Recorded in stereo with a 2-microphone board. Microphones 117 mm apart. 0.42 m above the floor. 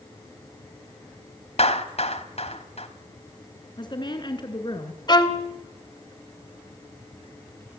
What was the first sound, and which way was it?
A clap, 65° left (ahead or behind).